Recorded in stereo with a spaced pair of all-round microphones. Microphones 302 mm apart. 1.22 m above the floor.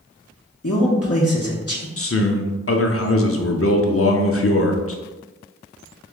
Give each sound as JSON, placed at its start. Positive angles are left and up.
{"t": 0.6, "sound": "a man speaking", "side_deg": 55, "distance_m": 1.0}
{"t": 2.0, "sound": "a man speaking", "side_deg": 50, "distance_m": 0.6}